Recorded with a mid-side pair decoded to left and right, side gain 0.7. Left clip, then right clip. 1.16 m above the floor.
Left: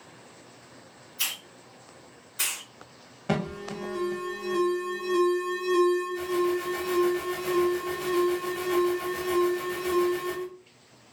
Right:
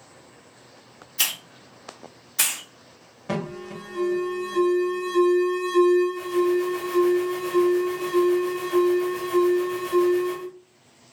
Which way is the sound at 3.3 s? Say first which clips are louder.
Even; 15° left.